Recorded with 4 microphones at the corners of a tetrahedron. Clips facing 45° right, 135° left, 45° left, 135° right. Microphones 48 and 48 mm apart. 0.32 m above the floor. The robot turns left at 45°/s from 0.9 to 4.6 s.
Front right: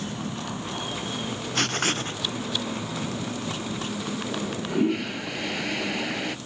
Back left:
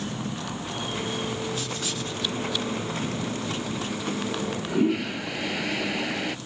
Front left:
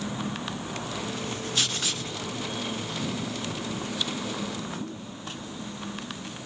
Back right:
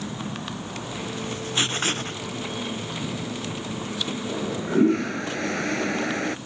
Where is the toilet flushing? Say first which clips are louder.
Back left 1 dB, back right 8 dB; 125° right; by 6.4 s 135° right.